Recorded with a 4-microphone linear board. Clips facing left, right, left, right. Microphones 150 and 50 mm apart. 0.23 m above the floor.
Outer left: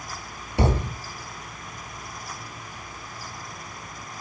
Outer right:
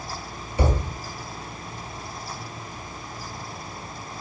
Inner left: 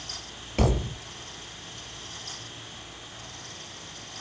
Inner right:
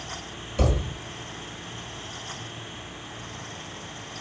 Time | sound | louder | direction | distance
0.6 | a thud | outer left 1 dB, even | 80° left | 2.0 m